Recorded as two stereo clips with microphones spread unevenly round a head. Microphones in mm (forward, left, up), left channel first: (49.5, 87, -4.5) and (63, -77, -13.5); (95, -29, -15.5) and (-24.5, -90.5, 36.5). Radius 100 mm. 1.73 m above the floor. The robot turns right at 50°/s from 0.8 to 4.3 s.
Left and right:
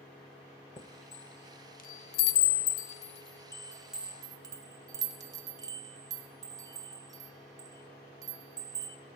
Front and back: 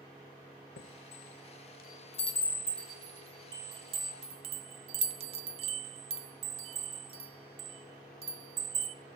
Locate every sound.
0.8 s a chime: 30° left, 0.7 m; by 8.9 s 155° right, 0.7 m